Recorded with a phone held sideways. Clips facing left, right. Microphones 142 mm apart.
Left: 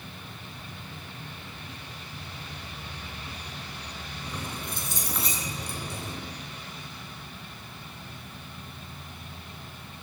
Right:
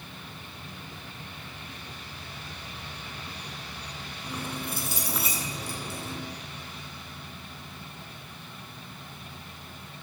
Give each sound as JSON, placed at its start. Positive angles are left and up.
{"t": 4.2, "sound": "keys jangling", "side_deg": -10, "distance_m": 8.0}